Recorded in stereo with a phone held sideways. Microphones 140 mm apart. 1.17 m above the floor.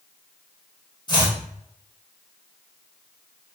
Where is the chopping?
30° left (ahead or behind), 1.0 m.